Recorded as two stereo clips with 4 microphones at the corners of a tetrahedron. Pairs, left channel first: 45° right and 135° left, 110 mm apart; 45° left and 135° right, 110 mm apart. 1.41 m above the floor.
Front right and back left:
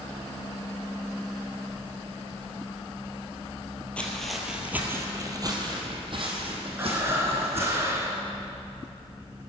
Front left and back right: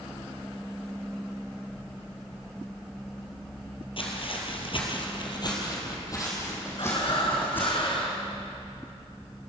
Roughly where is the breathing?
Left.